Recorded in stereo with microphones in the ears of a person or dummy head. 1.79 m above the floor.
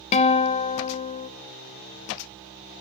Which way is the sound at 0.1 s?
30° left (ahead or behind).